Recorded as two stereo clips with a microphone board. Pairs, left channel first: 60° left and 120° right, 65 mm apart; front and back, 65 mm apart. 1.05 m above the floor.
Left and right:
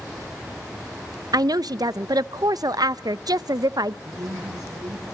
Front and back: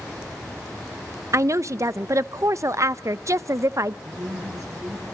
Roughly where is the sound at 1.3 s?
Behind right.